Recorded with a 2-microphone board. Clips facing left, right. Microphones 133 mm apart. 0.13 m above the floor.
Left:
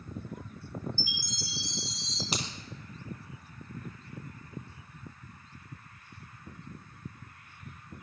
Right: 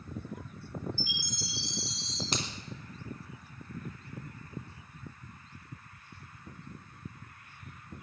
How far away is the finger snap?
About 3 m.